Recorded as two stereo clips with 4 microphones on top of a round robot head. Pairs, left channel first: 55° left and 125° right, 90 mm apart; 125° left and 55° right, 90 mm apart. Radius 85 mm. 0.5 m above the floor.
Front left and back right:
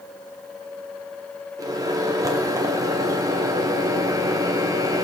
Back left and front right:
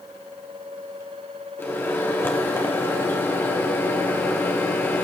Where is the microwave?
170° right, 1.8 m.